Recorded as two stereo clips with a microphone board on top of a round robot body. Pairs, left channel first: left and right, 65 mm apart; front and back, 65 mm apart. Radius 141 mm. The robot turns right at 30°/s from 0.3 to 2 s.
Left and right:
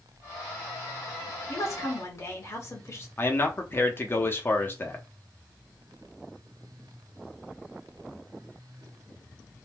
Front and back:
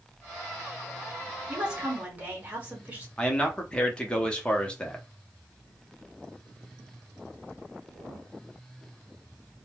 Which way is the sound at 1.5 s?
105° left.